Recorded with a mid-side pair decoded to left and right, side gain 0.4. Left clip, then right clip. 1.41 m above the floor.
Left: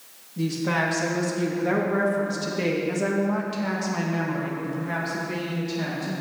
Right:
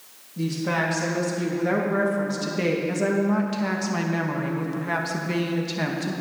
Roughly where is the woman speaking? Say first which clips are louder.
Even; ahead.